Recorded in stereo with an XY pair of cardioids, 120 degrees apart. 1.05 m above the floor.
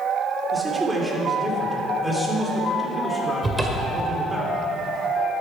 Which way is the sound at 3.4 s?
10° right.